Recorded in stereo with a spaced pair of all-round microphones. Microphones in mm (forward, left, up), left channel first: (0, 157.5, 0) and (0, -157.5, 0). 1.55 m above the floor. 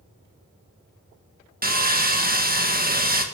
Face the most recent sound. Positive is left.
turn(degrees=-30)  # may be behind; listen again after turning